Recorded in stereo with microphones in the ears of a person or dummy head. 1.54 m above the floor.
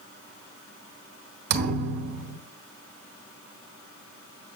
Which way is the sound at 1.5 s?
60° right (ahead or behind).